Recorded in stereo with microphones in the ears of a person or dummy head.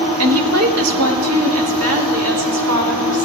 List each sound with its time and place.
0.2 s a woman speaking: 80° right, 1.1 m